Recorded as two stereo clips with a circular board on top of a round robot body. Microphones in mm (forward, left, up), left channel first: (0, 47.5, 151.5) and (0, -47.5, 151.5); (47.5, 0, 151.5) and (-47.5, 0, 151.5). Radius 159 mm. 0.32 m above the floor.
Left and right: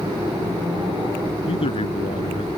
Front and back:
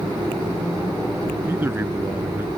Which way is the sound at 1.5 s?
110° left.